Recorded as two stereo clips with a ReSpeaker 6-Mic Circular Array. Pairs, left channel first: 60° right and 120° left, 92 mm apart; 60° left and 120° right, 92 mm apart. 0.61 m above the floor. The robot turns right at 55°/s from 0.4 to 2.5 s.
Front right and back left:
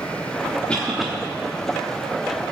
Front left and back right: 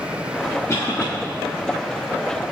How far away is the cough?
About 1.3 m.